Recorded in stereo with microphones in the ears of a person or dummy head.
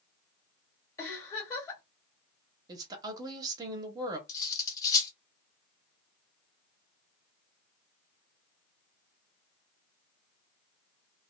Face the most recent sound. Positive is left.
turn(degrees=15)  # may be behind; listen again after turning